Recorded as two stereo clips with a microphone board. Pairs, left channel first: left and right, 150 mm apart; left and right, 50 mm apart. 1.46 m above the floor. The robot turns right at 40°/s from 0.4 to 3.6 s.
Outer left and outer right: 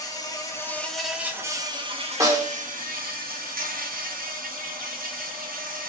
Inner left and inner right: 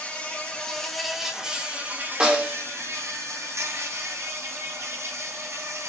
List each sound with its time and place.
0.0 s an insect: 155° left, 0.8 m; by 5.9 s 75° right, 0.8 m
2.2 s a snare drum: 20° right (ahead or behind), 1.1 m; by 2.6 s 25° right (ahead or behind), 1.1 m